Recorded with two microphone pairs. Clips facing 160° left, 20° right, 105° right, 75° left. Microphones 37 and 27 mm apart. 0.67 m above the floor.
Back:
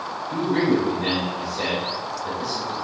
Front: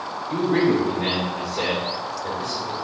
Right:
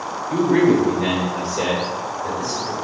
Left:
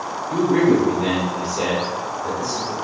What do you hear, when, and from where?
0.3 s a man speaking: 65° right, 1.8 m; by 2.7 s 40° right, 2.5 m